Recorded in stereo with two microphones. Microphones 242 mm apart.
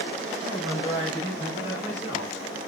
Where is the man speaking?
10° right (ahead or behind), 3.5 m; by 2.7 s 15° right (ahead or behind), 2 m.